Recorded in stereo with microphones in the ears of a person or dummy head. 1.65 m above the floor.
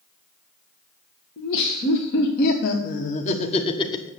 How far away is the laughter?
About 1.8 m.